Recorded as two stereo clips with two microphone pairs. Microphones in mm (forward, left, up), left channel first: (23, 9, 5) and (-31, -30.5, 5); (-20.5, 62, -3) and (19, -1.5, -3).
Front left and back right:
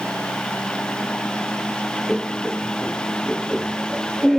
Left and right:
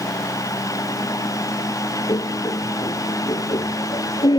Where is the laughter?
125° left; by 4.4 s 130° left.